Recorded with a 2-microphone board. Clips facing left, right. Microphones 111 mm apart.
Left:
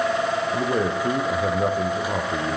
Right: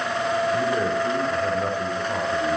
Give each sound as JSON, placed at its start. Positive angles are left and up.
{"t": 0.5, "sound": "a man speaking", "side_deg": 40, "distance_m": 9.0}